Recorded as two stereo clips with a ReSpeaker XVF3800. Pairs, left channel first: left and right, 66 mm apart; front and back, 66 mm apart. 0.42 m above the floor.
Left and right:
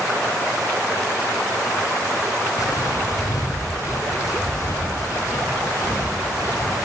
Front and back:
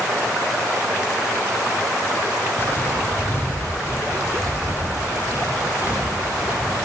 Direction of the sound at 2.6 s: 60° left.